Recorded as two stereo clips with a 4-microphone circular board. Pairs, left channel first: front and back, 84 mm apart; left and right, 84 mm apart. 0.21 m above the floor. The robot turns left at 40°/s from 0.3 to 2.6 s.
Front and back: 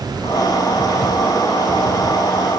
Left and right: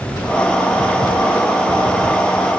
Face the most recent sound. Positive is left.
No sound to turn to.